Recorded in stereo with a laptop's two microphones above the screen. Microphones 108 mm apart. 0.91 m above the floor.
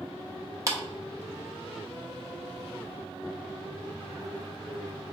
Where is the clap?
30° right (ahead or behind), 0.6 m.